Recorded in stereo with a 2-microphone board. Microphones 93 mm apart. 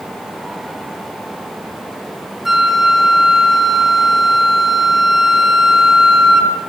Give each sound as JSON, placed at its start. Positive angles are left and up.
{"t": 2.5, "sound": "a flute", "side_deg": 0, "distance_m": 3.0}